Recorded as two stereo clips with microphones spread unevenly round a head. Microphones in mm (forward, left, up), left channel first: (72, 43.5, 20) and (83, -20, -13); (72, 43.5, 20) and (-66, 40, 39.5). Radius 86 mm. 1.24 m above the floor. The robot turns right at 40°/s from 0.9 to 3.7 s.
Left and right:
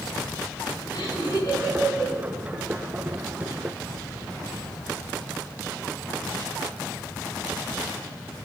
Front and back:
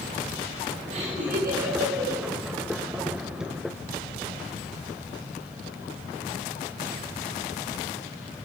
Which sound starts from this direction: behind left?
Laughter, at 0.9 s.